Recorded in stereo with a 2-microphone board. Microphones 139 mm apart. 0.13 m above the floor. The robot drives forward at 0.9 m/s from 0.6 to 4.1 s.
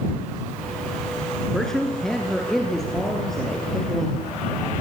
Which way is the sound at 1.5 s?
5° left (ahead or behind).